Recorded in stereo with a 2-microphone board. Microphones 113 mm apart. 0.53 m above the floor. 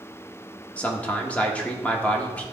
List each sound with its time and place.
0.8 s a man speaking: 10° left (ahead or behind), 1.0 m